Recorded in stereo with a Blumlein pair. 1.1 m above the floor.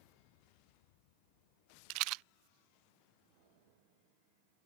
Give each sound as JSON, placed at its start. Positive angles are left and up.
{"t": 1.9, "sound": "a rattle", "azimuth_deg": -40}